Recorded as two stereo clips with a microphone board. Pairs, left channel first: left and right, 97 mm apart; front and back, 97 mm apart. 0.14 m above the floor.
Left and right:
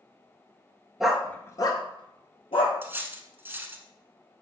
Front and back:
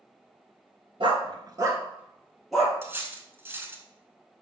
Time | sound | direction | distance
1.0 | a dog barking | 175° right | 0.6 m
2.8 | cutlery clinking | 140° right | 0.7 m